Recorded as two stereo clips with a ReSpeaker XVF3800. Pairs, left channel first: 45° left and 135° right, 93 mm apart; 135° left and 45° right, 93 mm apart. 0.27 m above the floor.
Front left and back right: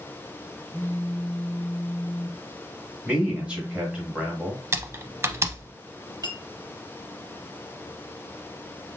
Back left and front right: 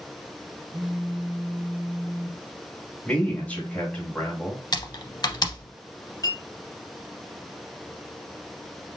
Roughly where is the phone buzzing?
Ahead right.